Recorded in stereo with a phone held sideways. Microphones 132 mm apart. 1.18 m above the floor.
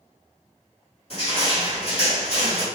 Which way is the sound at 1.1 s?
50° left (ahead or behind).